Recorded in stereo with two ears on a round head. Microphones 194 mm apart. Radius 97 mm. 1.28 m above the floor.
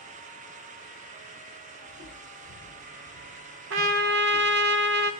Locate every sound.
1.9 s footsteps: 50° right (ahead or behind), 5.5 m; by 4.7 s 45° right (ahead or behind), 7 m
3.7 s a trumpet: 55° right (ahead or behind), 1.0 m